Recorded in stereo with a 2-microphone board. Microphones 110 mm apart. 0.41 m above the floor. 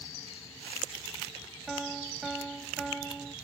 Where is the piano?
Centre (ahead or behind).